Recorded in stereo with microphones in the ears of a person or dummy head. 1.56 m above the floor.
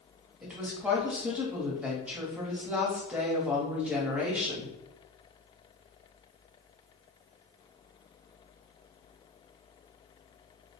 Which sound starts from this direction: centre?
A woman speaking, at 0.4 s.